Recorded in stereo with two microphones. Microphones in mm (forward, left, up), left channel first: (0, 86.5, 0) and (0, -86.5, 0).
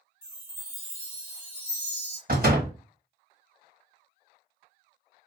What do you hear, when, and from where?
0.2 s a chime: 15° right (ahead or behind), 1.2 m
2.3 s a door slam: 60° right (ahead or behind), 1.3 m